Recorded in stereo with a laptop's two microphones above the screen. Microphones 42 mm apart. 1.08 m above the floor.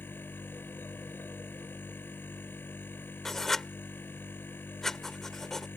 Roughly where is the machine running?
Left.